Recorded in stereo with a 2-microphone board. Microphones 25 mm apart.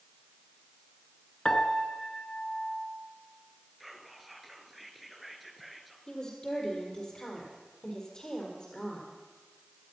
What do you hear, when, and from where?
1.4 s a piano: 25° left (ahead or behind), 1.3 m
3.8 s whispering: centre (ahead or behind), 2.0 m
6.1 s a woman speaking: 25° left (ahead or behind), 4.5 m